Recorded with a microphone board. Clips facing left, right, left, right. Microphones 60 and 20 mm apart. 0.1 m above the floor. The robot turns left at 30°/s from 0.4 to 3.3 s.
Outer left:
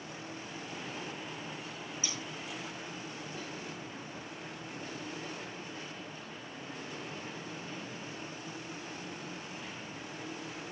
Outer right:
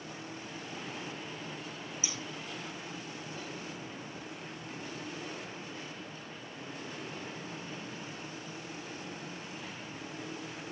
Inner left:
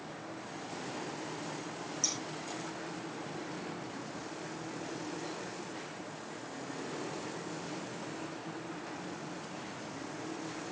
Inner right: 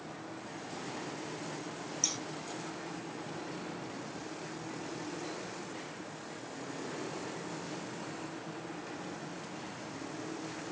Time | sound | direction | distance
2.0 | scissors | 15° right (ahead or behind) | 3 m